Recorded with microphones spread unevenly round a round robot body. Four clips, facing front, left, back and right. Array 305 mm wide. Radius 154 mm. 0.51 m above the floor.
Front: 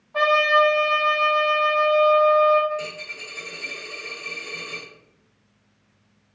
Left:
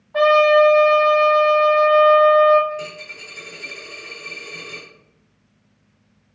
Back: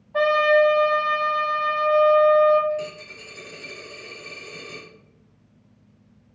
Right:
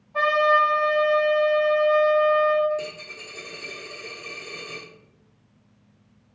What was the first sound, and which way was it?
A trumpet, 85° left.